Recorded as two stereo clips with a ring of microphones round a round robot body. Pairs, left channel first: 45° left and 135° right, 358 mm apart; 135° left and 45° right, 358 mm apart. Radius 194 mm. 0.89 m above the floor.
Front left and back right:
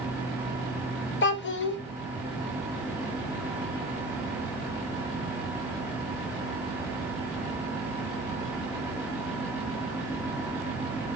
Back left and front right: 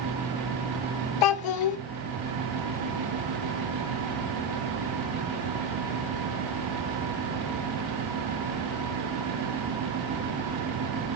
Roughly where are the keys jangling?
I don't hear keys jangling.